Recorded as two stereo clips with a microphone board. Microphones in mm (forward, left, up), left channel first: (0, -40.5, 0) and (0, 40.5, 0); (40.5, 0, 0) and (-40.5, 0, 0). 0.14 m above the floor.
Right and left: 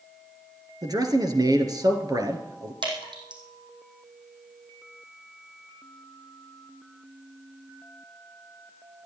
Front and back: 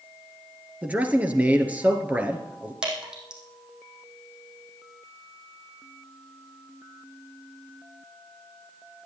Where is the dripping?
100° left, 4.5 m.